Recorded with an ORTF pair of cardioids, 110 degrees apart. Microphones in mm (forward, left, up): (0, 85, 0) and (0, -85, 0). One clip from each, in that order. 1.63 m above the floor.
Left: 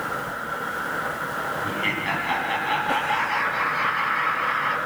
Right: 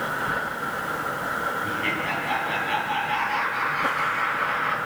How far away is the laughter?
About 2.5 m.